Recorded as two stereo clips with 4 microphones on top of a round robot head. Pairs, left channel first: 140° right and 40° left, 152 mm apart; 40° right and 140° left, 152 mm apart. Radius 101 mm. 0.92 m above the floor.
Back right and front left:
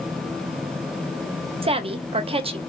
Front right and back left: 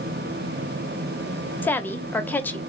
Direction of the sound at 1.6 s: 30° left.